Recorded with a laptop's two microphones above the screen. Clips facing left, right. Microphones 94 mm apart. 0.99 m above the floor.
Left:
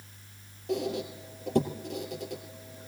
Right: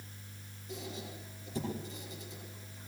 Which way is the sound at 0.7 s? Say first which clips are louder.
Left 13 dB; 65° left (ahead or behind).